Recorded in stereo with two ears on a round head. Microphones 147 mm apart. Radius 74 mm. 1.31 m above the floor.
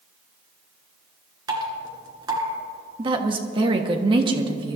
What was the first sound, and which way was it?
Dripping, 25° right (ahead or behind).